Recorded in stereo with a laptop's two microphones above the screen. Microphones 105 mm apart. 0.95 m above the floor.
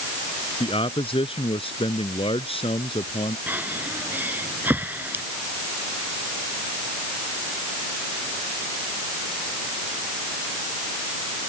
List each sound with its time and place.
0.6 s a man speaking: 60° left (ahead or behind)
3.5 s breathing: 15° right (ahead or behind)